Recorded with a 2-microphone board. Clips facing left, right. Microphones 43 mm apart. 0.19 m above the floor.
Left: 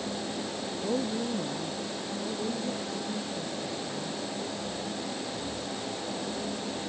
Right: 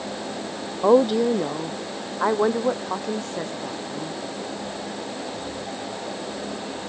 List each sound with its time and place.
0.8 s a woman speaking: 75° right (ahead or behind); by 4.2 s 80° right